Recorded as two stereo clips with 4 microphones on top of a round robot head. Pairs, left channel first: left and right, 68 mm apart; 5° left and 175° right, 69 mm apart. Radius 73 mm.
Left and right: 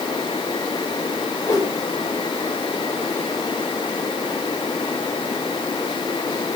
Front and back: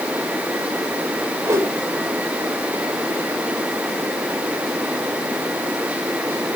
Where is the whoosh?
140° left, 5.5 m.